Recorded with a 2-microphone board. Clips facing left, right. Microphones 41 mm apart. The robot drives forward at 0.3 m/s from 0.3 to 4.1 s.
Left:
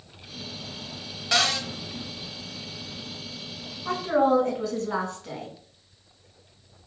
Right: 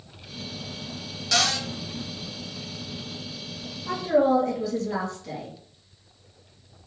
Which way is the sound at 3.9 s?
45° left (ahead or behind).